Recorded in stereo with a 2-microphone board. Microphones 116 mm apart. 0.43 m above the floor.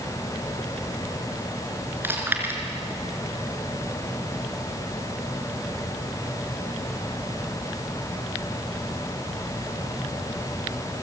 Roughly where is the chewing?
Centre.